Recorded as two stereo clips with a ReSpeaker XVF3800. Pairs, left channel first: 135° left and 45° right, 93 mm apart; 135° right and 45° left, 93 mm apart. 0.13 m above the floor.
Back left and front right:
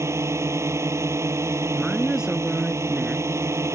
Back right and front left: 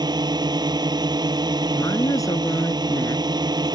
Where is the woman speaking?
125° right.